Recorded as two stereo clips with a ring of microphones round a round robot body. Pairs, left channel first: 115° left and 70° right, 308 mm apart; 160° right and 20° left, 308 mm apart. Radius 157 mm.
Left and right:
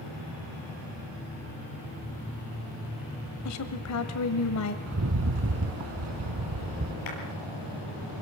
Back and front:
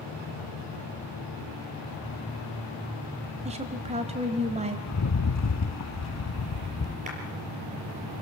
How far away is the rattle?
About 0.9 m.